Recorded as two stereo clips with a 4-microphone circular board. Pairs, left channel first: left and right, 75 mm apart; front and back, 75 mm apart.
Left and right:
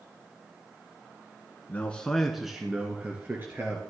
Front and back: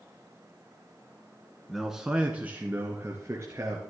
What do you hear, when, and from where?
1.7 s a man speaking: 90° left, 1.1 m; by 3.8 s 140° right, 1.7 m